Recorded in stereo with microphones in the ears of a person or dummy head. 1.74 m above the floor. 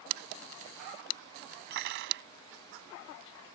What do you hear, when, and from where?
1.7 s cutlery clinking: 55° right (ahead or behind)